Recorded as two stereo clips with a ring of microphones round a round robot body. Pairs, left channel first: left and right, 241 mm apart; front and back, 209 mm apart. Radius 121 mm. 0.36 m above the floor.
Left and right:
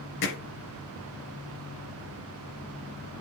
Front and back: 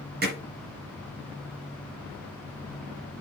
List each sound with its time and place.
0.2 s hammering: 135° left, 4 m